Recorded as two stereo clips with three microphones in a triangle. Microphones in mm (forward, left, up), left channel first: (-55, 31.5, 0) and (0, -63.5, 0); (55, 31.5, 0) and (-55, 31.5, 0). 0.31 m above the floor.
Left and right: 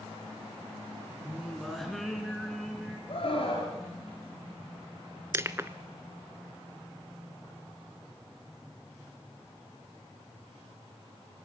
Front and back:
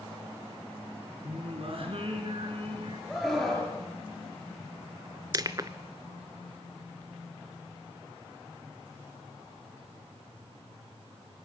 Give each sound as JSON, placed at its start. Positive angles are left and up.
{"t": 1.2, "sound": "singing", "azimuth_deg": -150, "distance_m": 3.5}
{"t": 3.1, "sound": "a scream", "azimuth_deg": 90, "distance_m": 5.0}
{"t": 5.3, "sound": "crushing", "azimuth_deg": -125, "distance_m": 0.7}